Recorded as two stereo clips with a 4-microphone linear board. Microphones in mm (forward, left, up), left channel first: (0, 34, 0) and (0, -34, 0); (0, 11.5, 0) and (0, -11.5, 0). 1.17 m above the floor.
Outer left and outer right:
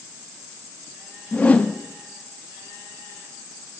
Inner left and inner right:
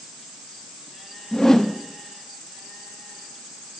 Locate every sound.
1.3 s a whoosh: 20° left (ahead or behind), 0.9 m